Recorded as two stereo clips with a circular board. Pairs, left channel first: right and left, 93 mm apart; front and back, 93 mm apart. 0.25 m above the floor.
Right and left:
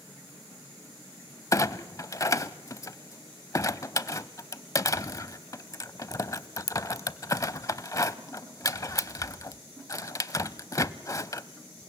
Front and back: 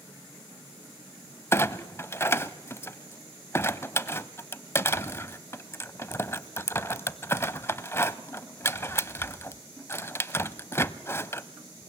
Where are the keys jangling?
I don't hear keys jangling.